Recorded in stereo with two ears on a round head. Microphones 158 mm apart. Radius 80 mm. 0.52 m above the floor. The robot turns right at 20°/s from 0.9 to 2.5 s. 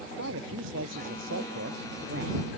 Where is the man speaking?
90° right; by 2.5 s 60° right.